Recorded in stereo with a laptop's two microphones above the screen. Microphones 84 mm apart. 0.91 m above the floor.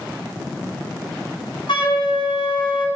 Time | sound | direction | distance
1.7 | a flute | 75° left (ahead or behind) | 2.5 m